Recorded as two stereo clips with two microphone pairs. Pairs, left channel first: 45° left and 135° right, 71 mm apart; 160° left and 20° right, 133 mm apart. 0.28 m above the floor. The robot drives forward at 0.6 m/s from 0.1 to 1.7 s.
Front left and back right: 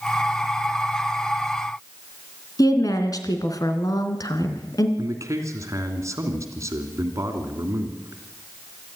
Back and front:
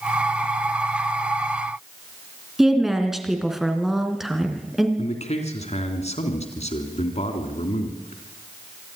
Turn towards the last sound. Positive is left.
turn(degrees=-175)